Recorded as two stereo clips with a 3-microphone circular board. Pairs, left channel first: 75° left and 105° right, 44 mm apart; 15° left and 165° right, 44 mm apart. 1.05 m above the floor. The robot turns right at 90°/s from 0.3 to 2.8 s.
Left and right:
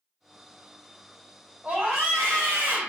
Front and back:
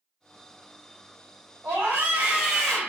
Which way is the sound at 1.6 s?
160° right.